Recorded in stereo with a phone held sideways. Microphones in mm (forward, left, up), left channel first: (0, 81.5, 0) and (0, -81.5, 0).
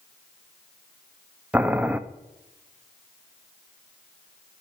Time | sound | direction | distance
1.5 | boiling | 10° right (ahead or behind) | 0.6 m